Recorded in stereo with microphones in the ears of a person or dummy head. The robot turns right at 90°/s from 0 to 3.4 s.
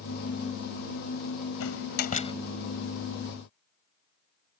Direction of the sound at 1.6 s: 85° left.